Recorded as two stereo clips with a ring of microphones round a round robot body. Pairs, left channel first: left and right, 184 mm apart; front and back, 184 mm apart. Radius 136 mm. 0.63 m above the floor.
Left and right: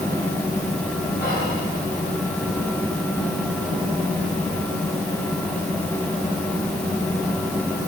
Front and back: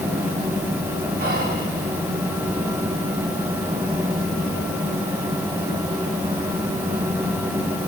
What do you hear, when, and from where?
1.2 s whispering: 145° left, 5 m